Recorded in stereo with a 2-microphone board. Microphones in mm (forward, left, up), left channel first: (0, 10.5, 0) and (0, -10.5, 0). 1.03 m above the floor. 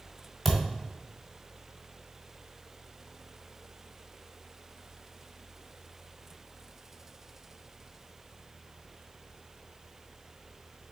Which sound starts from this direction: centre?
A thud, at 0.5 s.